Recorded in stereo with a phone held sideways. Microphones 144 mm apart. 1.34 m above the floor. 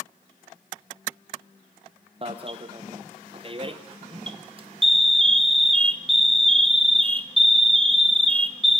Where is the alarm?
35° right (ahead or behind), 1.2 m.